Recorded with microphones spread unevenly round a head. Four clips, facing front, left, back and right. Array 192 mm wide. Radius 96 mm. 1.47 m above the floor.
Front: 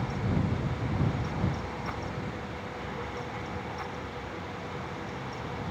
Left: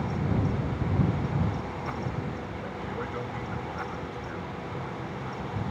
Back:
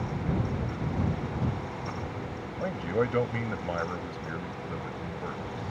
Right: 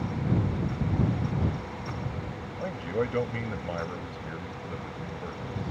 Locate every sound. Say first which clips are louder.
2.6 s a man speaking: right 9 dB, back 9 dB; 140° right